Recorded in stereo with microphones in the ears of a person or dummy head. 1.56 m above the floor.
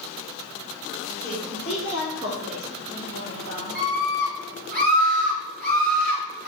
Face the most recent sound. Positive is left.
turn(degrees=-45)  # may be behind; listen again after turning